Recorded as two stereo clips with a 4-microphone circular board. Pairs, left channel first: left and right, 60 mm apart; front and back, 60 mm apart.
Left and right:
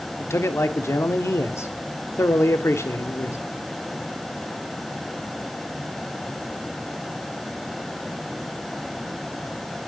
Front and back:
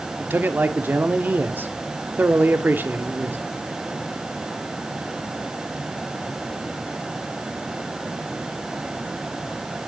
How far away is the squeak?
No squeak in this recording.